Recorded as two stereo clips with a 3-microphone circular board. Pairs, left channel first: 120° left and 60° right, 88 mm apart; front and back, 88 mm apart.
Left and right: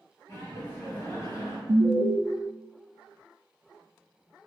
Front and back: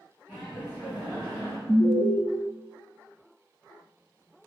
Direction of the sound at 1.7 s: 135° right.